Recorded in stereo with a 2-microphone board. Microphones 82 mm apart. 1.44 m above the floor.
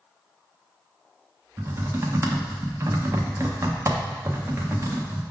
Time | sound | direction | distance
1.6 | typing on a keyboard | 35° right (ahead or behind) | 0.7 m